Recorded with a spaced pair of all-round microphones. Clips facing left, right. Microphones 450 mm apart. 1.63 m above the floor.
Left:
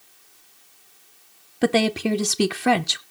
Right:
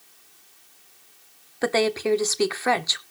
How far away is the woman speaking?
About 0.9 m.